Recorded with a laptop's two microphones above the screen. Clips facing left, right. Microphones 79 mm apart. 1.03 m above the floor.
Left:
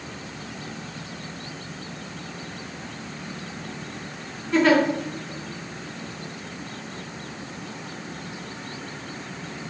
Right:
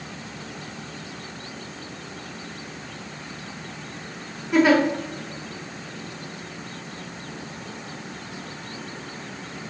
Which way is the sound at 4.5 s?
10° right (ahead or behind).